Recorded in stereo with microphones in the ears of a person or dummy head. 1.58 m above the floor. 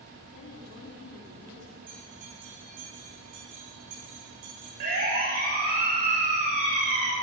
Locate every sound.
0.3 s a woman speaking: 55° left (ahead or behind), 4 m
1.9 s a bell: 45° right (ahead or behind), 10 m
4.8 s a siren: 50° right (ahead or behind), 6.5 m; by 7.1 s 40° right (ahead or behind), 4.5 m